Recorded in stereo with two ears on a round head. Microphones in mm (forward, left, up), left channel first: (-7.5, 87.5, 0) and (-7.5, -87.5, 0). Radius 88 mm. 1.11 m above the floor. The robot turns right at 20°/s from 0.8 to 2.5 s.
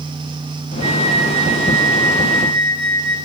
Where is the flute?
30° right, 4.5 m; by 3.2 s 5° left, 4.5 m.